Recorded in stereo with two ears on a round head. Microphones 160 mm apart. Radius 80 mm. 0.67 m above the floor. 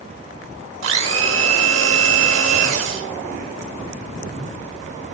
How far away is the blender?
About 1.0 m.